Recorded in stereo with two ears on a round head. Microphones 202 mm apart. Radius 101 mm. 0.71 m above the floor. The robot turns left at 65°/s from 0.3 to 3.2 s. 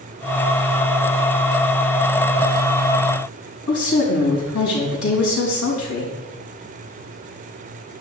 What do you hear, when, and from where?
3.7 s a woman speaking: 70° left (ahead or behind), 4.5 m